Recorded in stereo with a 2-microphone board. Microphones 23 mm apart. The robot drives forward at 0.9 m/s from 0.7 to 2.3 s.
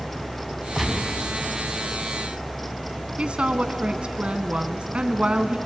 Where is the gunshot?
5° right (ahead or behind), 2 m; by 1.2 s centre (ahead or behind), 2.5 m.